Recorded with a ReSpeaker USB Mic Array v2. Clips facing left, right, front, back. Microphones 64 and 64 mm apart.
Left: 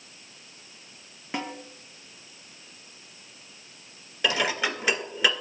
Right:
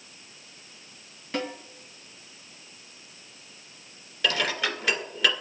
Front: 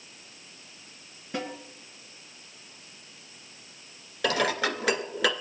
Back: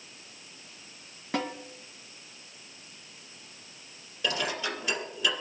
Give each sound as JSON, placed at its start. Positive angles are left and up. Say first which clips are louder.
{"t": 1.3, "sound": "a snare drum", "louder": "right 2 dB, back 2 dB", "azimuth_deg": 160, "distance_m": 2.0}
{"t": 4.2, "sound": "dishes clattering", "louder": "left 1 dB, front 5 dB", "azimuth_deg": 15, "distance_m": 2.0}